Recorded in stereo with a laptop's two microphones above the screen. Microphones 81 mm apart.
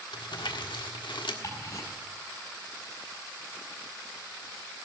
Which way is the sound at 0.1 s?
75° left (ahead or behind).